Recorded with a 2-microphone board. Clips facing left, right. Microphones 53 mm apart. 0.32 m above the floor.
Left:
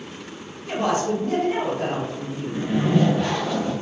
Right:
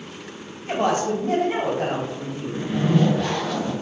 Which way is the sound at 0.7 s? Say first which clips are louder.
Right 1 dB; 45° right (ahead or behind).